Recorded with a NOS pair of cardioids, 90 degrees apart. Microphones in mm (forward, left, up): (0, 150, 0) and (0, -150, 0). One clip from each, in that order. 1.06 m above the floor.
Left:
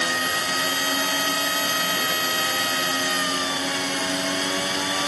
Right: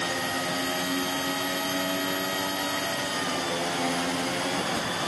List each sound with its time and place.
0.0 s a machine running: 65° left